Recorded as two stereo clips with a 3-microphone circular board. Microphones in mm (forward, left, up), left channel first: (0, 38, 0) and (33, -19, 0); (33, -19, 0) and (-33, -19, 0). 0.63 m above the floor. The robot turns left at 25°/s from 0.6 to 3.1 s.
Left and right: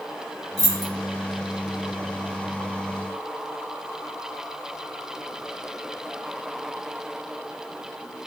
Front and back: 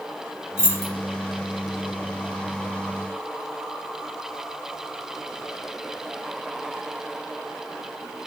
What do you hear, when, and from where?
0.6 s keys jangling: 40° right, 1.2 m; by 0.9 s 45° right, 1.2 m